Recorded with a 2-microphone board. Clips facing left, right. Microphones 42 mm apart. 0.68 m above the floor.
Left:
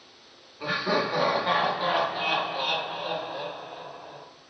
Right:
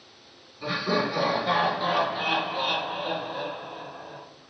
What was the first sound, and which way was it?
Laughter, 40° left (ahead or behind).